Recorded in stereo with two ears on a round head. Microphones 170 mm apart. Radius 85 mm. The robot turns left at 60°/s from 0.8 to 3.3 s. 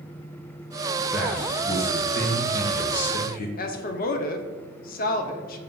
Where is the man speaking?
170° right, 1.0 m; by 3.5 s 55° left, 1.0 m.